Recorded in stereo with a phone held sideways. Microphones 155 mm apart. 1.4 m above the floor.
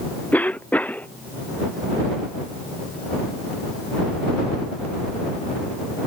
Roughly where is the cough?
Centre.